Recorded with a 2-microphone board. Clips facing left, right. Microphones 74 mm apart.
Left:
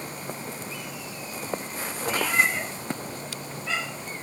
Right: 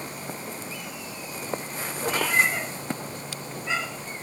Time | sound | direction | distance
2.0 | a cat meowing | 50° right (ahead or behind) | 3 m